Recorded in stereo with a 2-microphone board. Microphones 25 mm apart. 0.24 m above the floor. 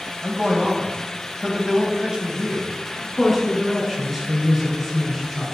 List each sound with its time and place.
0.2 s a man speaking: 30° right (ahead or behind), 1.4 m
3.0 s a woman speaking: 5° right (ahead or behind), 2 m